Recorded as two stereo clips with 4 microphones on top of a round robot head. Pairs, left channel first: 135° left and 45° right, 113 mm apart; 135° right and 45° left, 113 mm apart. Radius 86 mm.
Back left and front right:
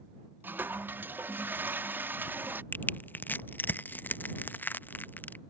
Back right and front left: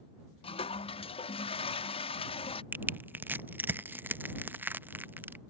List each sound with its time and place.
0.4 s a toilet flushing: 115° right
2.7 s crushing: 90° left